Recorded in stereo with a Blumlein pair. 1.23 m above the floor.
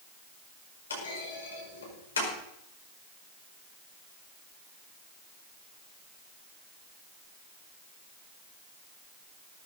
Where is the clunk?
70° left, 5 m.